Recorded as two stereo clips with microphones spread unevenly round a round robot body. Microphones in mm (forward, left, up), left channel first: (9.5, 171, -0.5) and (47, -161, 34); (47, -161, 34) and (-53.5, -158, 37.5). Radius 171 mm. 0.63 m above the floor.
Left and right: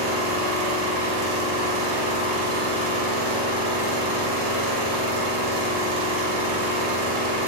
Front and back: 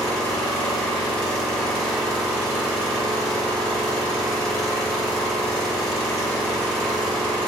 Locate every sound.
0.0 s an engine running: 85° right, 0.9 m